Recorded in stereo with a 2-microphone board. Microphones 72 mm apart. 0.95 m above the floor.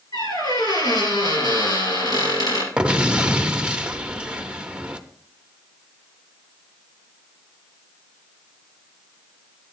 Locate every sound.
0.1 s a squeak: 70° left (ahead or behind), 3 m
2.8 s an explosion: 15° right (ahead or behind), 0.6 m